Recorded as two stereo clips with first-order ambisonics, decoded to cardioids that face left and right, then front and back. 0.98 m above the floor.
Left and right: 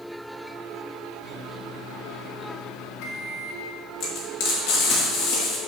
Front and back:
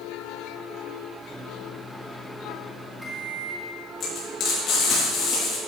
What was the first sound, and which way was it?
A microwave, 95° left.